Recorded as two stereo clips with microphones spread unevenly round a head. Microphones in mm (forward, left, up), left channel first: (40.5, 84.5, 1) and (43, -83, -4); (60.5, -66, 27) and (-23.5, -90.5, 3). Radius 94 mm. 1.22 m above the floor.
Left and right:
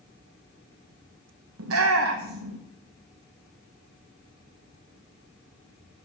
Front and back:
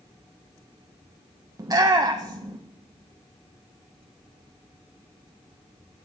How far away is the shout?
About 0.9 m.